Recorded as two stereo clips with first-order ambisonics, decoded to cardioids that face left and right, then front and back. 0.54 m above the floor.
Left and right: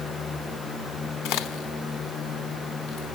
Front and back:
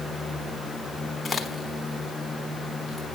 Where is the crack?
75° left, 0.8 m.